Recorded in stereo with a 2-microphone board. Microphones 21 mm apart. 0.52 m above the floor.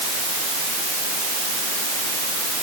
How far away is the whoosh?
I don't hear a whoosh.